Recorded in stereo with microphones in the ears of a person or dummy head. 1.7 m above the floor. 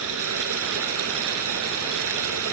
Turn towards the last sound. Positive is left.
turn(degrees=-75)  # may be behind; listen again after turning